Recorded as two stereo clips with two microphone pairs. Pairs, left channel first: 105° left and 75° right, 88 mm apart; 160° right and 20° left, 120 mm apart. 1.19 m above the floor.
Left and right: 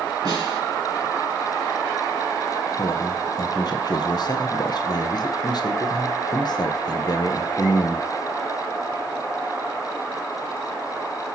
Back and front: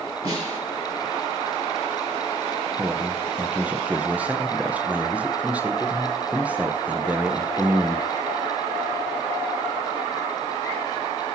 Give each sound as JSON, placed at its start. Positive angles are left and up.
{"t": 0.2, "sound": "a snare drum", "azimuth_deg": -35, "distance_m": 4.5}
{"t": 2.8, "sound": "a man speaking", "azimuth_deg": 95, "distance_m": 0.9}